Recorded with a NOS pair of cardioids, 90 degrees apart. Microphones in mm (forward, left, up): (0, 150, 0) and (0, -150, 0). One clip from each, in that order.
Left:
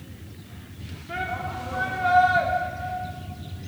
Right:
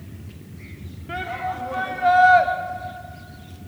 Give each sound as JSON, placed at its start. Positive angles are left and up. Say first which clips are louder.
{"t": 1.1, "sound": "a shout", "louder": "right 2 dB", "azimuth_deg": -30, "distance_m": 3.0}